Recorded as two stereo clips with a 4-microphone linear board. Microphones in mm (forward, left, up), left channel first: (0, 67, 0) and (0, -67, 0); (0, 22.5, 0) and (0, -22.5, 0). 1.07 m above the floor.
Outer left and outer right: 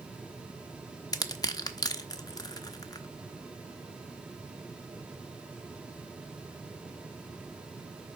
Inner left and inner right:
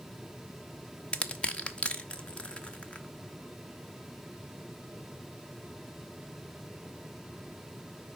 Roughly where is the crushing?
Left.